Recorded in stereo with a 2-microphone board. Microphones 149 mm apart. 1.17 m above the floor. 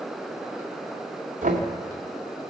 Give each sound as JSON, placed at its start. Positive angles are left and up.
{"t": 1.4, "sound": "knocking", "side_deg": -65, "distance_m": 2.0}